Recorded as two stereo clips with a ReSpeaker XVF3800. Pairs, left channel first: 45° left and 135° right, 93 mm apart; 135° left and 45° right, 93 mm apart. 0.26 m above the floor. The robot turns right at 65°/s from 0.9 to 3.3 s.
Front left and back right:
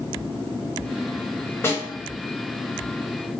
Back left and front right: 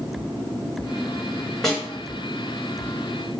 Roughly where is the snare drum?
Ahead left.